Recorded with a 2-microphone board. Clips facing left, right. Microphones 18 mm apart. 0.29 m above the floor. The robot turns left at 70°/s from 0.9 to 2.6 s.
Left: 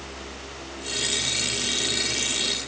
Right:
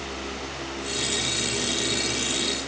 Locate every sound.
Only background noise.